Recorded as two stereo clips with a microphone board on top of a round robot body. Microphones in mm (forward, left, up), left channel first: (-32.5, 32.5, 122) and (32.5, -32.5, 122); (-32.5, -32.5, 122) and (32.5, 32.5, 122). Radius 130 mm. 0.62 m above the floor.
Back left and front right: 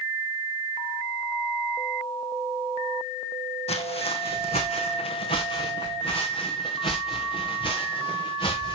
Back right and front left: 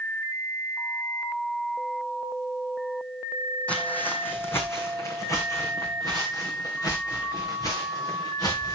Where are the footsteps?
150° left, 2 m; by 8.8 s 175° left, 6.5 m.